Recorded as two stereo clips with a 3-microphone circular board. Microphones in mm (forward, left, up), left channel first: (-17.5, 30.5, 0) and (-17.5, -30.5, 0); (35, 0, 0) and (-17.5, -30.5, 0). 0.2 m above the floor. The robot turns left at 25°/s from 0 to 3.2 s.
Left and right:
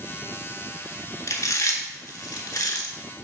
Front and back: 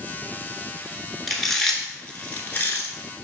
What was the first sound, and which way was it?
Chewing, 120° left.